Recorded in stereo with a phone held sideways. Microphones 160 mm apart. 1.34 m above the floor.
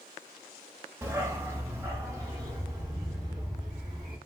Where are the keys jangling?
I don't hear keys jangling.